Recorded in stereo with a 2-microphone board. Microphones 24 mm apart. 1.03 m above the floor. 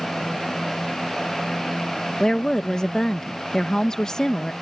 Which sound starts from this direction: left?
A woman speaking, at 2.2 s.